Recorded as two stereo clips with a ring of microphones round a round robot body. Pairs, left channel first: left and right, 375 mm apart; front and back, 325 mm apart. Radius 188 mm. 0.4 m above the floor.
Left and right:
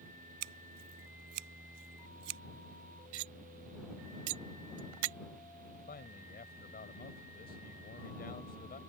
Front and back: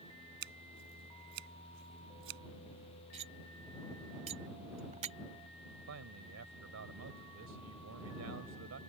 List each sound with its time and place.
0.4 s scissors: 120° right
3.1 s cutlery clinking: 110° right
5.9 s a man speaking: 155° left